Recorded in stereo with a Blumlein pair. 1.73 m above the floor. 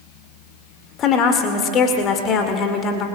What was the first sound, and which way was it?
A woman speaking, 30° left.